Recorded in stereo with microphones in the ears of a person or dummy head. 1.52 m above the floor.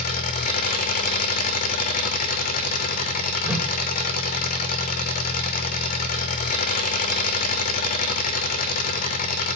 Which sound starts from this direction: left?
An engine running, at 0.0 s.